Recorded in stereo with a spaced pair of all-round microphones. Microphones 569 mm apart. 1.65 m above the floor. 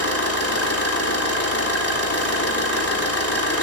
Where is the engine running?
25° left (ahead or behind), 3.5 m.